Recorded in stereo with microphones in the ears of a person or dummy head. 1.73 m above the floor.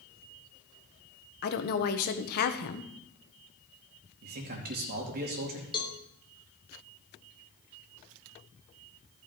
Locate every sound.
1.4 s a woman speaking: 50° left (ahead or behind), 1.2 m
4.2 s a man speaking: 50° right (ahead or behind), 3 m
5.7 s a cowbell: 25° left (ahead or behind), 1.1 m